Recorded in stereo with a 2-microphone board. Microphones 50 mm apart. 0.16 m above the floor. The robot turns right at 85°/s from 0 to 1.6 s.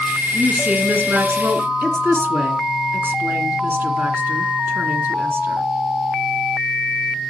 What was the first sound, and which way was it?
A woman speaking, straight behind.